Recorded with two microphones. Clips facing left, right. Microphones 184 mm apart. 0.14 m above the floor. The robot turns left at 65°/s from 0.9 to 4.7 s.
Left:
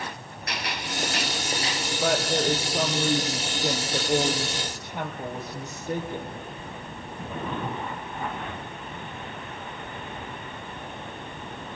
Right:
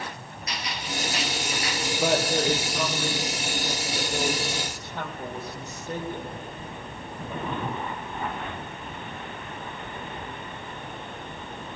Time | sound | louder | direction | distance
0.5 | a gunshot | left 1 dB | 80° left | 1.9 m
2.0 | a woman speaking | right 1 dB | 170° right | 3.5 m